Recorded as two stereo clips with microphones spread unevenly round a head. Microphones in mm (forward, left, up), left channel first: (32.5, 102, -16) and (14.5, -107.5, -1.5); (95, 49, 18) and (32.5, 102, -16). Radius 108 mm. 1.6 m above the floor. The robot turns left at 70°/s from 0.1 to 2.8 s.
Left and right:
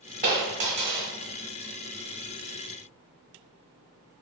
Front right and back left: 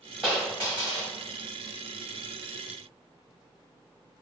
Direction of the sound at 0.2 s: 90° right.